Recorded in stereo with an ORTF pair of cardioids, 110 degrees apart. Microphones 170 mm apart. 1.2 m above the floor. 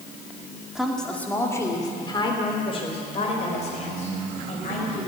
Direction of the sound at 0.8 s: 5° right.